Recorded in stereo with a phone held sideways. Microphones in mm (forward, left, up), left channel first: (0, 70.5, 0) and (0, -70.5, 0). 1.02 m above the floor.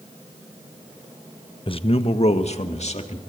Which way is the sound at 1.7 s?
40° left (ahead or behind).